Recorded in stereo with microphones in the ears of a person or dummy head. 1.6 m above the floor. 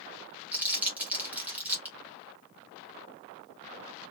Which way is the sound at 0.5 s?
5° right (ahead or behind).